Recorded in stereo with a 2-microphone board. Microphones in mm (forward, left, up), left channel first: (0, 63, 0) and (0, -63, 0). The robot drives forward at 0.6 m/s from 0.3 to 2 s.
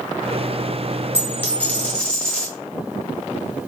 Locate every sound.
1.1 s a dropped coin: 20° left (ahead or behind), 0.6 m; by 2.5 s 10° left (ahead or behind), 1.1 m